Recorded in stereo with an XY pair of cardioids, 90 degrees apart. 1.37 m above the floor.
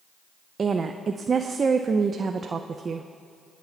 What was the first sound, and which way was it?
A woman speaking, 40° right.